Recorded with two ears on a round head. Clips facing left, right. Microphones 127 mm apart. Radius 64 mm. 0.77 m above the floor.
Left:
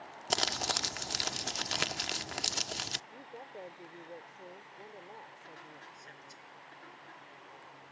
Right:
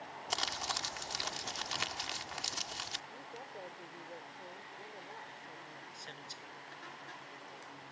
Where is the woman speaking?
15° left (ahead or behind).